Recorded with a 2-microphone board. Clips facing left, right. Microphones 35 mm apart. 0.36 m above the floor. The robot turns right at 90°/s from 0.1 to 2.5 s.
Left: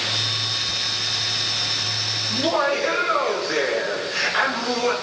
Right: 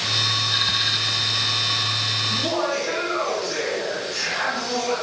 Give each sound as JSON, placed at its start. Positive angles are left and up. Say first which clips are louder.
{"t": 2.3, "sound": "laughter", "louder": "left 7 dB", "side_deg": 25, "distance_m": 5.5}